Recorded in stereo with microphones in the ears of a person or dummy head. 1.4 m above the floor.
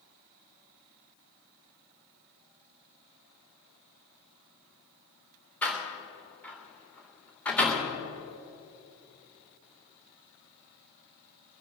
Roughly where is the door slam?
Centre.